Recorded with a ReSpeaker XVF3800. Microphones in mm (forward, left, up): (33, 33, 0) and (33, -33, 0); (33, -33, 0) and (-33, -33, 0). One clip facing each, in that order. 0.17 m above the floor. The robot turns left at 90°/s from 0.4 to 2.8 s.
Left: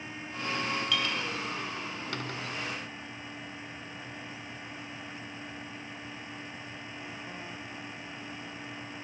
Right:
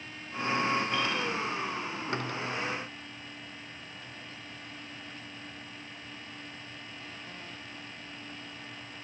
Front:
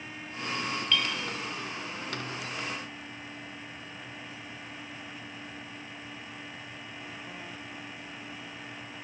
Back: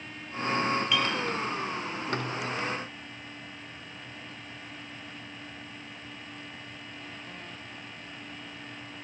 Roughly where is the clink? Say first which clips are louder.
Right 1 dB, back 3 dB; left.